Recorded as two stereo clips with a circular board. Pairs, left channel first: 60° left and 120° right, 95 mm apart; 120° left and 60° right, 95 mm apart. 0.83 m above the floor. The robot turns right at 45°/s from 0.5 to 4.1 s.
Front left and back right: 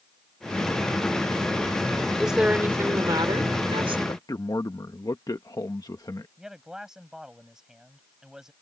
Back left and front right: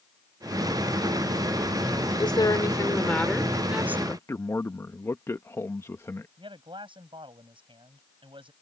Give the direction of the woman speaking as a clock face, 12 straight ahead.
7 o'clock.